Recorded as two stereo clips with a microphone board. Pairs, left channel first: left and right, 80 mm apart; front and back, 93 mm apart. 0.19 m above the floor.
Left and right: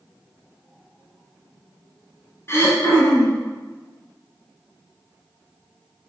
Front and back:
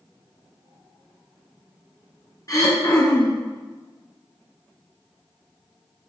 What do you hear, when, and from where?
2.5 s throat clearing: 40° left, 2.5 m